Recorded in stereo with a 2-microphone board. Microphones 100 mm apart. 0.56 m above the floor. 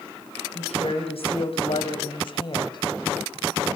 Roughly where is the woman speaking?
Left.